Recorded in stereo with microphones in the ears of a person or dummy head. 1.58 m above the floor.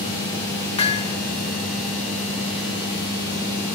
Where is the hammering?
30° left (ahead or behind), 1.9 m.